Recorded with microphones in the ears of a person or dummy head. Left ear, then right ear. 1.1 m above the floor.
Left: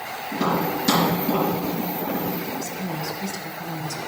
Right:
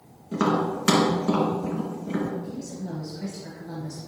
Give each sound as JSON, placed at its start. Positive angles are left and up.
{"t": 0.3, "sound": "tapping", "side_deg": -70, "distance_m": 3.0}
{"t": 2.4, "sound": "a woman speaking", "side_deg": 35, "distance_m": 0.9}